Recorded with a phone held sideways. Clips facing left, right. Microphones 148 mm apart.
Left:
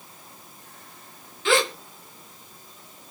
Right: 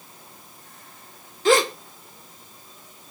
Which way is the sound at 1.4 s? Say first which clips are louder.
Right 4 dB; 40° right (ahead or behind).